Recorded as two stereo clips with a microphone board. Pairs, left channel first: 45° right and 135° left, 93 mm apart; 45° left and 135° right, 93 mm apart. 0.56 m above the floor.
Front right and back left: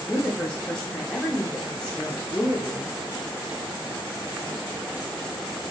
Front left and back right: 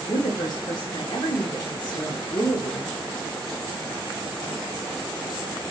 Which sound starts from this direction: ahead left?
A woman speaking, at 0.1 s.